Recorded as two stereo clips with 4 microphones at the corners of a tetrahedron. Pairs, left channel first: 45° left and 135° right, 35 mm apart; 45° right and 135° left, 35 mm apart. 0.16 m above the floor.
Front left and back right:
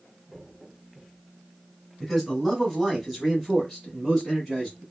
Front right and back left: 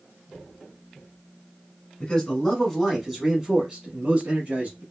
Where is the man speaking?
45° right, 1.1 m; by 4.8 s 145° left, 1.4 m.